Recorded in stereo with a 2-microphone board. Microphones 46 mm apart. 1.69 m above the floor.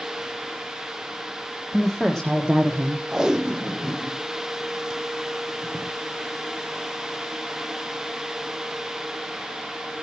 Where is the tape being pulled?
15° right (ahead or behind), 0.7 m.